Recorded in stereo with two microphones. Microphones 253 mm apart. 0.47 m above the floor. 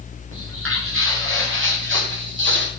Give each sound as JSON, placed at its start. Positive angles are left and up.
{"t": 0.3, "sound": "footsteps", "side_deg": -60, "distance_m": 10.0}